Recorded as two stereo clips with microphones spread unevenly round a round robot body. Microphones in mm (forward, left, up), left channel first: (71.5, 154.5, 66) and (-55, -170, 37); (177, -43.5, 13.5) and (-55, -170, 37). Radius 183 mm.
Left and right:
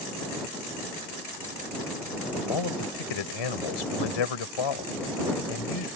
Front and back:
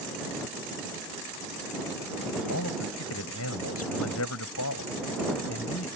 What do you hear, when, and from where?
2.5 s a man speaking: 75° left